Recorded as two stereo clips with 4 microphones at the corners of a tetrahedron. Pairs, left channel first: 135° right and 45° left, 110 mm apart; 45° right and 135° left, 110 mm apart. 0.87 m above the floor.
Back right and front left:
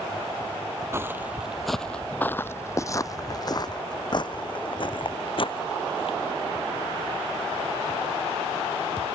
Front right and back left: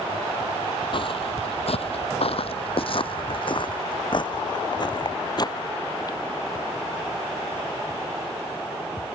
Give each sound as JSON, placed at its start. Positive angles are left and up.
{"t": 0.9, "sound": "footsteps", "azimuth_deg": -15}